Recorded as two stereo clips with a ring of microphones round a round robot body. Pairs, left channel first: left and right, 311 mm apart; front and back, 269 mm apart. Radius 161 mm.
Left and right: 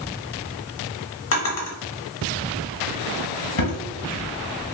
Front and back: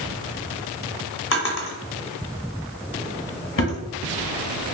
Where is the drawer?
45° left, 1.0 m.